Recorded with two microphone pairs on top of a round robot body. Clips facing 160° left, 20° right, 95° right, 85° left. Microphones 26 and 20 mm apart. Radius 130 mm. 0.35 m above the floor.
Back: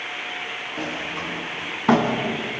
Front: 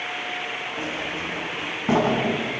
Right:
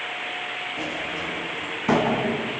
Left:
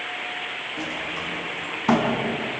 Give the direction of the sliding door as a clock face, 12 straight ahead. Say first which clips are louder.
Back 2 dB, even; 7 o'clock.